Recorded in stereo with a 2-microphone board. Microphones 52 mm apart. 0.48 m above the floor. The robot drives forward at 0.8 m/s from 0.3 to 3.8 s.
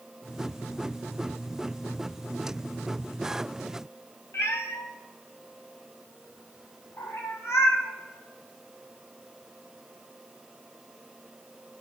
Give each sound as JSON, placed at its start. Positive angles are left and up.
{"t": 4.3, "sound": "a cat meowing", "side_deg": 65, "distance_m": 2.0}